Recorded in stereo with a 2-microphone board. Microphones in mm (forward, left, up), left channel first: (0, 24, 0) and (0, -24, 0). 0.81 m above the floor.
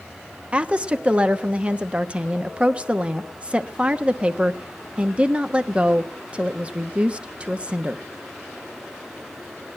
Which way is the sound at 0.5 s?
25° right (ahead or behind).